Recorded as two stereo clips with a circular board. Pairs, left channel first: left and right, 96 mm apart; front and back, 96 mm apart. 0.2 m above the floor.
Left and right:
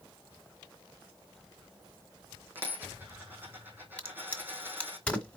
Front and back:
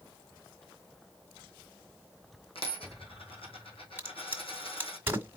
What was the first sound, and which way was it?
A dropped coin, 20° right.